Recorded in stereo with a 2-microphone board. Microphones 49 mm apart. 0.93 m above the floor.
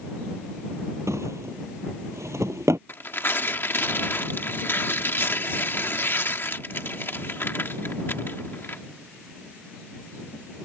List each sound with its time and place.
1.1 s a drawer: 80° right
2.9 s tearing paper: 50° left (ahead or behind)